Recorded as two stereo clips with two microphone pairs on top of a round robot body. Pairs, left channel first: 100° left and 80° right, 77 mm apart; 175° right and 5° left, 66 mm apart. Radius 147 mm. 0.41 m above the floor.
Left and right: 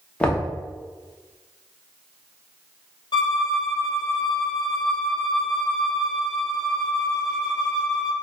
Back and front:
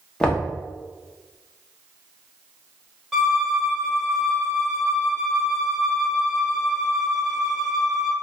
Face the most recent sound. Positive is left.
turn(degrees=85)